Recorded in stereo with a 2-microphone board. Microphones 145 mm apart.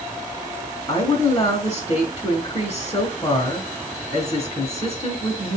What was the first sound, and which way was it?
A woman speaking, 35° left (ahead or behind).